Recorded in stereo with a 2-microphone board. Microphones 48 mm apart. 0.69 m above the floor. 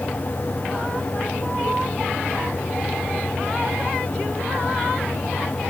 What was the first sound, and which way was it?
Only background noise.